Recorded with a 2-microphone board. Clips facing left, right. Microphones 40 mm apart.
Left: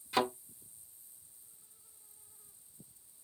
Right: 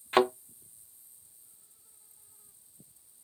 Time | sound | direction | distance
0.1 | a thud | 45° right (ahead or behind) | 0.6 m